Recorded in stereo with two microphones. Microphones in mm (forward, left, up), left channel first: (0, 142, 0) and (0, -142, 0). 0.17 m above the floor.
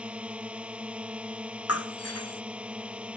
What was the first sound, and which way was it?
A drone, 5° right (ahead or behind).